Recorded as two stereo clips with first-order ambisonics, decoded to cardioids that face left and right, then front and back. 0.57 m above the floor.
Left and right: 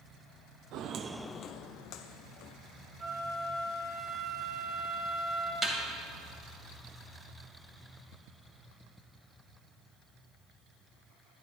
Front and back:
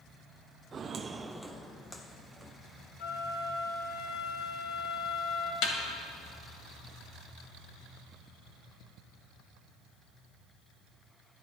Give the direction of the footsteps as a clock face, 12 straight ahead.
4 o'clock.